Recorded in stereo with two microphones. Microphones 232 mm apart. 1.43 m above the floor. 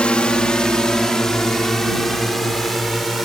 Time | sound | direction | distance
0.0 | a drone | 5° left (ahead or behind) | ?